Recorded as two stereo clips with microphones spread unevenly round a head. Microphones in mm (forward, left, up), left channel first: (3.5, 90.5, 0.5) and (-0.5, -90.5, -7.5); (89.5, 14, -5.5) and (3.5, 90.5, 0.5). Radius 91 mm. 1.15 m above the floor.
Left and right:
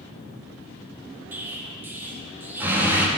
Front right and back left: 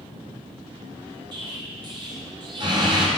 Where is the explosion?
170° right, 0.7 m.